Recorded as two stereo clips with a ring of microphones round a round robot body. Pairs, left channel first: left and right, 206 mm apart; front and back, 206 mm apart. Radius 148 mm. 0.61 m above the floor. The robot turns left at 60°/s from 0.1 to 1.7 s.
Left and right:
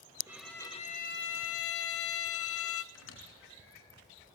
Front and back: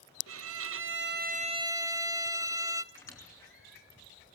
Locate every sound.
0.3 s a violin: 170° right, 0.7 m; by 2.8 s 105° left, 0.7 m
2.9 s a squeak: 75° left, 5 m